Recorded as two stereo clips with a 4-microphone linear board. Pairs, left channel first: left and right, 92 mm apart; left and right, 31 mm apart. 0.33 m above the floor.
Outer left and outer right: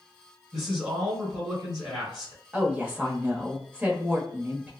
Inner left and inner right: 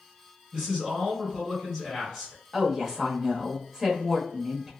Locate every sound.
0.5 s a man speaking: 5° right (ahead or behind), 1.7 m
2.5 s a woman speaking: 20° right (ahead or behind), 0.9 m